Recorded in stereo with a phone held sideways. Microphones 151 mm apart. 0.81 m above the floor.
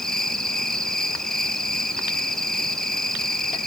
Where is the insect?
5° left (ahead or behind), 1.3 m.